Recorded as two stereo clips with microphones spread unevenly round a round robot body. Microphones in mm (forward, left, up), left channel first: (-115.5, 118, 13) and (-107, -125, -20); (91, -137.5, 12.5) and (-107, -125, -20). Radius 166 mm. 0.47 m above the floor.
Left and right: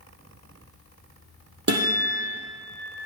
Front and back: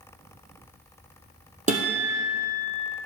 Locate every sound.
1.7 s a guitar: 130° right, 2.5 m